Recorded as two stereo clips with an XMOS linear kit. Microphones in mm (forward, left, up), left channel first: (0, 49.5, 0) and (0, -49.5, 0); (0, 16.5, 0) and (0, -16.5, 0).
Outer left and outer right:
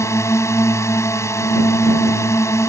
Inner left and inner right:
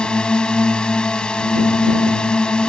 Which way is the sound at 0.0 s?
30° left (ahead or behind).